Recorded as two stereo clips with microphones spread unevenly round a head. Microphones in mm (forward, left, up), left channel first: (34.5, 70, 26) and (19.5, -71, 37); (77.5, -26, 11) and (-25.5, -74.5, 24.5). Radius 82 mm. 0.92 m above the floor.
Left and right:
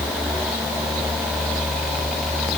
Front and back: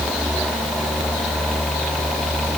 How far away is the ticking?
No ticking in this recording.